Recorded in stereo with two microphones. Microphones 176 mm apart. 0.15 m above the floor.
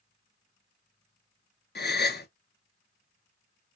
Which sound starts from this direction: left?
A gasp, at 1.8 s.